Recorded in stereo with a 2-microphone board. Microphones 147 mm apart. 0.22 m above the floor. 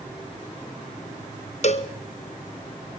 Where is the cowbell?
50° left (ahead or behind), 1.1 m.